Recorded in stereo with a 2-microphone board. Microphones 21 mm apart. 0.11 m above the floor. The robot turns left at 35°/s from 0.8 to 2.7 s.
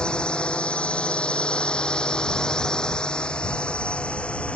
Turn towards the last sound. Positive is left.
turn(degrees=65)  # may be behind; listen again after turning